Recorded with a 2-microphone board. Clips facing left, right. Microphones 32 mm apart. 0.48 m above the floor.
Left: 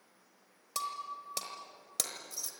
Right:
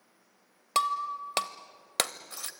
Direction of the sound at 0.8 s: 50° right (ahead or behind).